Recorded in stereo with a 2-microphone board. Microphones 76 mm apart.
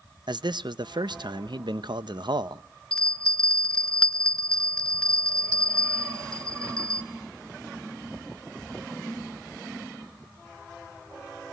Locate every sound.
0.3 s a man speaking: 75° right (ahead or behind), 0.6 m
2.9 s a bell: 15° left (ahead or behind), 0.6 m